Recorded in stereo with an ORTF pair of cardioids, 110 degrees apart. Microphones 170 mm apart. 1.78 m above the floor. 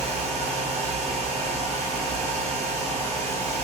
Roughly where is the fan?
Ahead right.